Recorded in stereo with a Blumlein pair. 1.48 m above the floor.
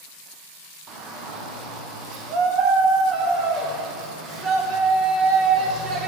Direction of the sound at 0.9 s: 30° right.